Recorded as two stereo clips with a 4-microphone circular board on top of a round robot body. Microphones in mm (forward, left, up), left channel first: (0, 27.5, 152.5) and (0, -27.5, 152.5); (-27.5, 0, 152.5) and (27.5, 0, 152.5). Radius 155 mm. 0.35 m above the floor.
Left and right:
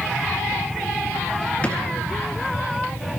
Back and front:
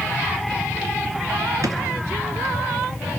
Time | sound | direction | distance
1.6 | a drawer | 20° left | 1.8 m